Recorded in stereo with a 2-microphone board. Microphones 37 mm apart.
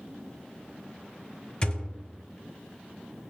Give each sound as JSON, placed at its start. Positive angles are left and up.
{"t": 1.6, "sound": "a thud", "side_deg": 25, "distance_m": 1.3}